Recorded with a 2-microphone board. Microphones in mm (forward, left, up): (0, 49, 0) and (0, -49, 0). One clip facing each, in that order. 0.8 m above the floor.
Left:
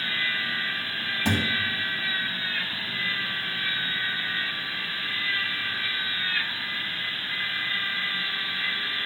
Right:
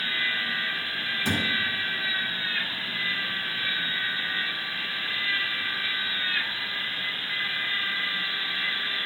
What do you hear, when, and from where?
1.2 s a thud: 80° left, 2 m